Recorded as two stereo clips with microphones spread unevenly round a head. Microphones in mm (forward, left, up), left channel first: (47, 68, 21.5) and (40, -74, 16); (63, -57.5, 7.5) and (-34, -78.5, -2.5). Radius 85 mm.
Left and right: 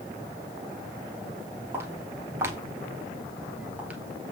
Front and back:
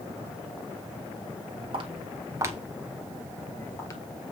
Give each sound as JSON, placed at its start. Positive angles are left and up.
{"t": 1.7, "sound": "footsteps", "azimuth_deg": -170, "distance_m": 1.4}